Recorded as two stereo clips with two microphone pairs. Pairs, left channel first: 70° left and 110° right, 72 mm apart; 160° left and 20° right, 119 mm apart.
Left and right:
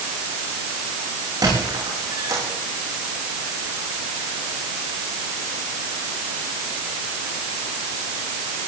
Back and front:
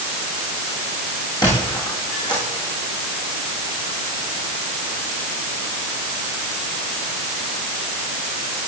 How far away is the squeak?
About 7 m.